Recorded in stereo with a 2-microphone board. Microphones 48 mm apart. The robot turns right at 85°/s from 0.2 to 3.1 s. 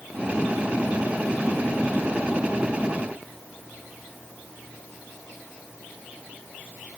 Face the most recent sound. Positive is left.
No sound to turn to.